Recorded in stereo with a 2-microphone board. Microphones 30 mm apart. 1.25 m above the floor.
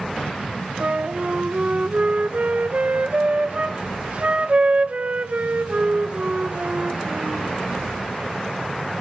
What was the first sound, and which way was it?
A flute, 45° right (ahead or behind).